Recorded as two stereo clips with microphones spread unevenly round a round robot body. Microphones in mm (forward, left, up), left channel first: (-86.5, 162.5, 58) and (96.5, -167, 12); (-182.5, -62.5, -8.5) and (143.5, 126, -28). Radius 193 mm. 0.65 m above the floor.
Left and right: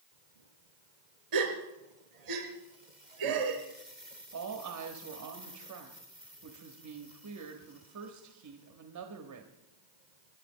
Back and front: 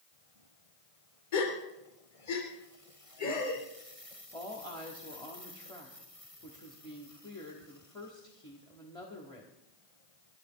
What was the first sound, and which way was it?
A gasp, 100° right.